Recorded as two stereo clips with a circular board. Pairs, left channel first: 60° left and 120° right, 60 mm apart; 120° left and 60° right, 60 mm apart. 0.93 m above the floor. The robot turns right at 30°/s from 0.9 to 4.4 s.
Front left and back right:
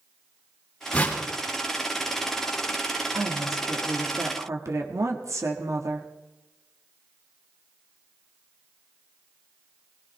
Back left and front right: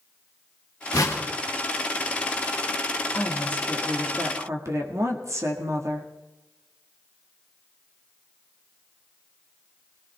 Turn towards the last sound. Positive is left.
turn(degrees=-90)